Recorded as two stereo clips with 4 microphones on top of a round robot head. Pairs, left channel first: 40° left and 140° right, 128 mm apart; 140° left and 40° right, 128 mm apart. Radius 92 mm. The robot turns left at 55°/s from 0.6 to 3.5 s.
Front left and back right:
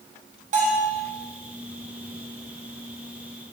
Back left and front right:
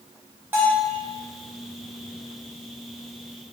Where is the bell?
115° right, 0.8 m; by 0.9 s 130° right, 0.8 m.